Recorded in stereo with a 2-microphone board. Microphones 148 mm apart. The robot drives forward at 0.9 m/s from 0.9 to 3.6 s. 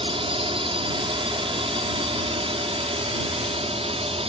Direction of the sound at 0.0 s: 35° right (ahead or behind).